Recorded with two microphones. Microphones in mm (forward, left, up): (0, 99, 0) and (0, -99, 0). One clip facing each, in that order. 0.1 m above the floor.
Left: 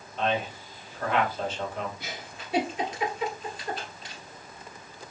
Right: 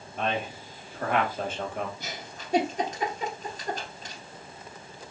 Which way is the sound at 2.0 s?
45° right (ahead or behind).